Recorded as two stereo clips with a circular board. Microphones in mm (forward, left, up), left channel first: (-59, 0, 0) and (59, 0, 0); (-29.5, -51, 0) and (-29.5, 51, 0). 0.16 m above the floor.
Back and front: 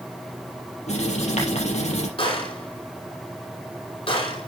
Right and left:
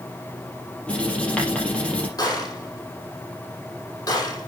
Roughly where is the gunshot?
Behind right.